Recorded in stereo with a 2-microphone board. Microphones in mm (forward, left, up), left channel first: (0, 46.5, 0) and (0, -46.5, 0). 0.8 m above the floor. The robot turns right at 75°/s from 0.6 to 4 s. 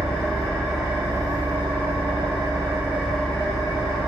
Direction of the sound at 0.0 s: 175° left.